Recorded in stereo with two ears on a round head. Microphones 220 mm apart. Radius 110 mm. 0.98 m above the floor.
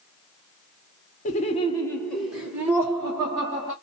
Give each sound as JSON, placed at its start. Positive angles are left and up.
{"t": 1.2, "sound": "laughter", "side_deg": 35, "distance_m": 0.6}